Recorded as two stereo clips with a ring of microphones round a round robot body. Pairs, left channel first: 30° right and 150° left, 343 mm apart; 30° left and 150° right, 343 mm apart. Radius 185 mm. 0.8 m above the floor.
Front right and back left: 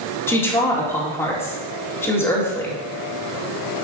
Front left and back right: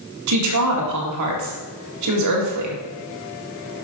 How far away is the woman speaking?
About 1.9 m.